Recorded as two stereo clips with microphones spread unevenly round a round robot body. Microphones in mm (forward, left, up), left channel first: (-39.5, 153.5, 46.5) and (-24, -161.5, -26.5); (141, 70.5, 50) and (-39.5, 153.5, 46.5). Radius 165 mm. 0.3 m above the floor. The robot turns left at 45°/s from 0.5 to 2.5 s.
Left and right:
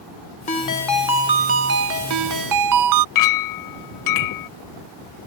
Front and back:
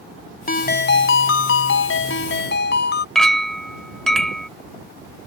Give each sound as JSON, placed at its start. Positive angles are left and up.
{"t": 0.5, "sound": "a ringtone", "azimuth_deg": 20}
{"t": 3.1, "sound": "a clink", "azimuth_deg": 65}